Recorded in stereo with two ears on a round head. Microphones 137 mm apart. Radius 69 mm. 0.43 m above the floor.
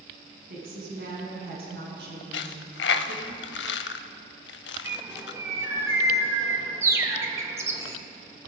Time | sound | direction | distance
0.5 | a woman speaking | 60° right (ahead or behind) | 3.5 m
2.3 | a dropped coin | 85° left | 0.5 m
4.8 | a bird | 20° right (ahead or behind) | 1.2 m